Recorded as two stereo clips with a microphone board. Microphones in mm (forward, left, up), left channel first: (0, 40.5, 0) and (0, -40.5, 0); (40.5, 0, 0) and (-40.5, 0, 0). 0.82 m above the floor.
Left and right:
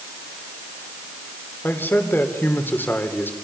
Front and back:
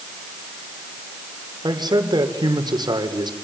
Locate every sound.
1.6 s a man speaking: 155° left, 3.5 m